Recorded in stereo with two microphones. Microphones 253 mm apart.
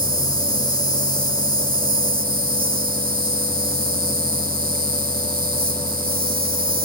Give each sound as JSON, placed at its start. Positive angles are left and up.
{"t": 0.0, "sound": "an insect", "side_deg": -35, "distance_m": 2.5}